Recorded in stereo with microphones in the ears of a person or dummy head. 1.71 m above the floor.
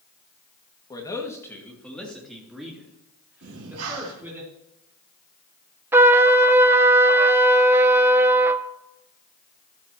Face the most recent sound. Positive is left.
turn(degrees=-15)  # may be behind; listen again after turning